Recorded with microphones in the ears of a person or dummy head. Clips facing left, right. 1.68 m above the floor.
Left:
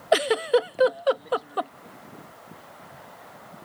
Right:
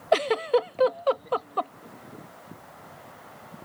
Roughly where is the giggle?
Centre.